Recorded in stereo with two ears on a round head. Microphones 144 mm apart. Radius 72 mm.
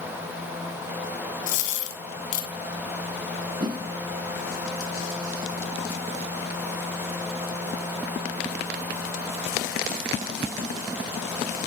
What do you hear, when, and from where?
1.5 s a dropped coin: 50° left (ahead or behind), 1.5 m
3.6 s a whoosh: 25° right (ahead or behind), 0.6 m